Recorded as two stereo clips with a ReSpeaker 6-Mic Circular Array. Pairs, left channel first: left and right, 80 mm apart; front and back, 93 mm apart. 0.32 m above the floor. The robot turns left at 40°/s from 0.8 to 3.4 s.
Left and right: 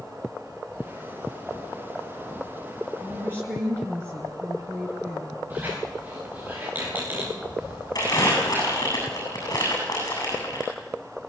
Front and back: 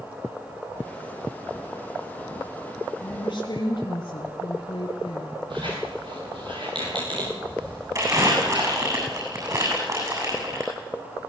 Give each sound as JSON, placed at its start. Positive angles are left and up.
{"t": 3.0, "sound": "a woman speaking", "azimuth_deg": -20, "distance_m": 3.5}
{"t": 5.5, "sound": "a squeak", "azimuth_deg": -155, "distance_m": 7.5}
{"t": 8.0, "sound": "crumpling", "azimuth_deg": 130, "distance_m": 8.0}